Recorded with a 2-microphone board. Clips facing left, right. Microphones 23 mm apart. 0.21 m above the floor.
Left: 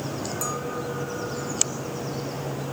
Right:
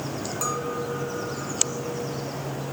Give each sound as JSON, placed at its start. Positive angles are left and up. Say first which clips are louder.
{"t": 0.4, "sound": "a clink", "louder": "right 4 dB", "side_deg": -15, "distance_m": 1.3}